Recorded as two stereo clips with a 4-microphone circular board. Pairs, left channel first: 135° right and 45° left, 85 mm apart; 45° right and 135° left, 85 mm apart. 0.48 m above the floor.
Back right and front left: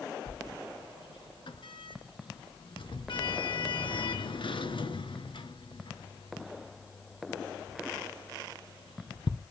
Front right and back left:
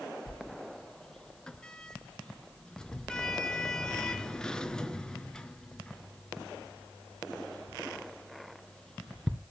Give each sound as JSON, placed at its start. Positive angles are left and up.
{"t": 0.3, "sound": "a sliding door", "azimuth_deg": -125, "distance_m": 2.0}